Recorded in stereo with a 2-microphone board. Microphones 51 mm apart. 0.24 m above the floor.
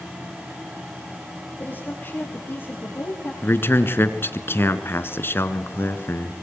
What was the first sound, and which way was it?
A woman speaking, 35° left (ahead or behind).